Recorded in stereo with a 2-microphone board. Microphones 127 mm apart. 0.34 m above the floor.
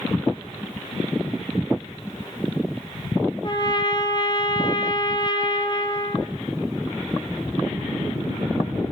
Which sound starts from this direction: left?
A trumpet, at 3.4 s.